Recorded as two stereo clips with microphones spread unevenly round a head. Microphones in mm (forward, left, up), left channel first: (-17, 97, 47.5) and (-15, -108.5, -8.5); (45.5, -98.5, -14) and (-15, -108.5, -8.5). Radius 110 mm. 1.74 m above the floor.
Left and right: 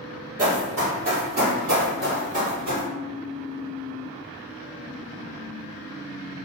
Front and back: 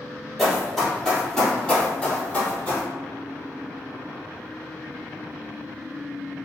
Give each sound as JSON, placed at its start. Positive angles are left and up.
{"t": 0.4, "sound": "running footsteps", "azimuth_deg": -85, "distance_m": 1.8}